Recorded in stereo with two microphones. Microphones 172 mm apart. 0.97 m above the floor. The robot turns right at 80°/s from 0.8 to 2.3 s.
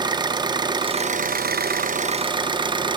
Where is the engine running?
150° right, 0.7 m; by 3.0 s 30° right, 0.7 m.